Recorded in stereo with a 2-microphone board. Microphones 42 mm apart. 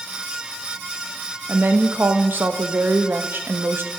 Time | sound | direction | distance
1.5 | a woman speaking | 55° right (ahead or behind) | 0.6 m